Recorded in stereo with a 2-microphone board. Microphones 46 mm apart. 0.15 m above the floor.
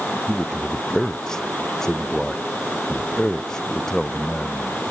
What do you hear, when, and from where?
0.3 s a man speaking: 10° left (ahead or behind)